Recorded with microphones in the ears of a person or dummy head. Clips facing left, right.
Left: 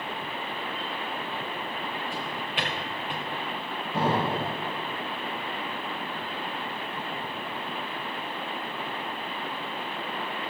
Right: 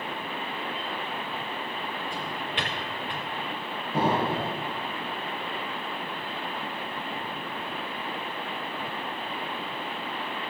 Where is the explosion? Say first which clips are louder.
Right 1 dB; 10° right (ahead or behind), 1.9 m.